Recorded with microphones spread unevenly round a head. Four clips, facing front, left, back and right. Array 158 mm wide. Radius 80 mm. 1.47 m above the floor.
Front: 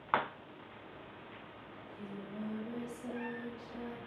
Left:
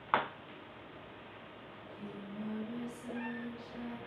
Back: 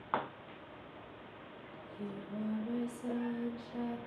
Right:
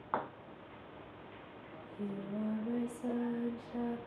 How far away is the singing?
About 3 m.